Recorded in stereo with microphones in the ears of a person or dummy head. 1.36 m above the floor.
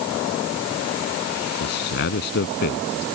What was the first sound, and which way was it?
A man speaking, 50° left (ahead or behind).